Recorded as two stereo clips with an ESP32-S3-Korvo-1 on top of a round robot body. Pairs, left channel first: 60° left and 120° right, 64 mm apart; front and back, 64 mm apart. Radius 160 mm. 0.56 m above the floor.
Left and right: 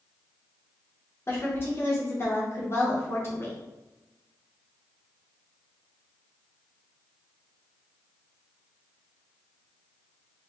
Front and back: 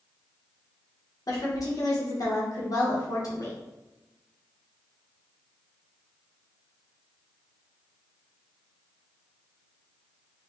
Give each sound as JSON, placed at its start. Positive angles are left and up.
{"t": 1.3, "sound": "a woman speaking", "azimuth_deg": 10, "distance_m": 1.8}